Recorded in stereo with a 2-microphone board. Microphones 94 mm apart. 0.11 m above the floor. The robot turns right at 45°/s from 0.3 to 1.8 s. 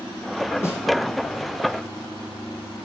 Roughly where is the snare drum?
Left.